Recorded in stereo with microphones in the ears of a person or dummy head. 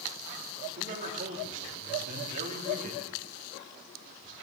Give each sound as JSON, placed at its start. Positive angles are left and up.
{"t": 0.8, "sound": "a man speaking", "side_deg": -40, "distance_m": 3.0}